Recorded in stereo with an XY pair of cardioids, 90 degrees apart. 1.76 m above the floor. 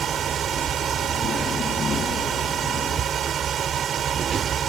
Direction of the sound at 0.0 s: 65° right.